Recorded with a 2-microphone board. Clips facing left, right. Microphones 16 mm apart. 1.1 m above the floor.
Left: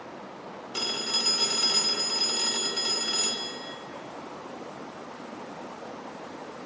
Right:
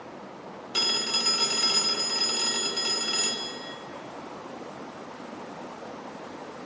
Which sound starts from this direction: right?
A phone ringing, at 0.7 s.